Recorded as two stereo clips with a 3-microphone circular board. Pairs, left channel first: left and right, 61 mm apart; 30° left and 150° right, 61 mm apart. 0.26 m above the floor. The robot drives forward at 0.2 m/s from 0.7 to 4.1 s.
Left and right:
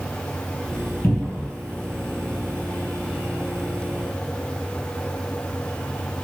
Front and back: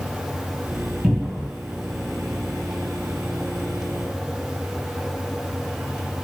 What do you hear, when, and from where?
1.0 s a cupboard door: 145° left, 1.7 m